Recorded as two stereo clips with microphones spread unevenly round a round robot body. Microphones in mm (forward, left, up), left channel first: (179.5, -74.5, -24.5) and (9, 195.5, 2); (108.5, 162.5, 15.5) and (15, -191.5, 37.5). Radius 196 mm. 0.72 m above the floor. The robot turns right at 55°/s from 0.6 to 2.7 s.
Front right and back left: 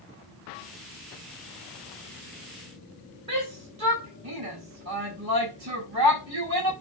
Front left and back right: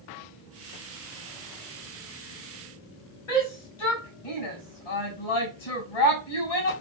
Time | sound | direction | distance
3.3 | a shout | 80° left | 4 m